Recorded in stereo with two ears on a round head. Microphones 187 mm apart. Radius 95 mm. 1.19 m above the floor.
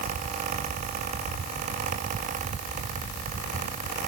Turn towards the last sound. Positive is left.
No sound to turn to.